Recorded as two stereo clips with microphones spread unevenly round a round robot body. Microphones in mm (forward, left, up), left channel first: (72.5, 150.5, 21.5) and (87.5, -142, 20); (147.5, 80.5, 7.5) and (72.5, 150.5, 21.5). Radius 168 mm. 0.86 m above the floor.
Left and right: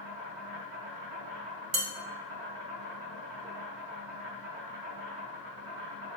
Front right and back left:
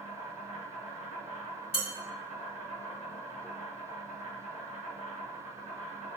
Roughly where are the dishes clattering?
Right.